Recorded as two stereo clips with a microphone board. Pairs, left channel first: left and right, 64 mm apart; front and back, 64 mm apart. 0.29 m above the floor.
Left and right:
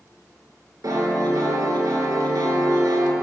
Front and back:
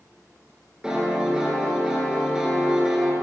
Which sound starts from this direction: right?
A piano, at 0.8 s.